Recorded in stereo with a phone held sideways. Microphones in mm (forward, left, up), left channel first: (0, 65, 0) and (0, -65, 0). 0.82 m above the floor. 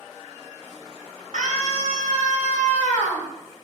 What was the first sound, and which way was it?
A scream, 80° right.